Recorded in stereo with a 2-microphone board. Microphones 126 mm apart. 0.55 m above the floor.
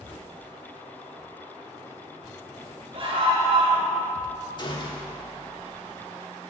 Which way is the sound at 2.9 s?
45° right (ahead or behind).